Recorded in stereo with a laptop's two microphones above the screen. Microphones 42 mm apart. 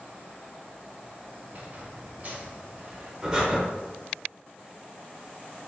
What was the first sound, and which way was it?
A squeak, 40° right (ahead or behind).